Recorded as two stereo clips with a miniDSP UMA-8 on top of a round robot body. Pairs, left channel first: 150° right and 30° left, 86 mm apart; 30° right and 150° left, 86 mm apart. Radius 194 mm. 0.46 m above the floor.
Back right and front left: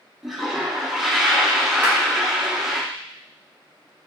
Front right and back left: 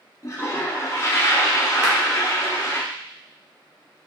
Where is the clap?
95° left, 1.6 m.